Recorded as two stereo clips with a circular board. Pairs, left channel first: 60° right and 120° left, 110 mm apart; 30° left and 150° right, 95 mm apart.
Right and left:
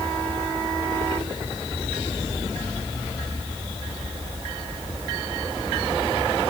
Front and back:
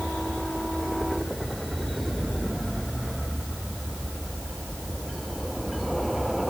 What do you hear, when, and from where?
Only background noise.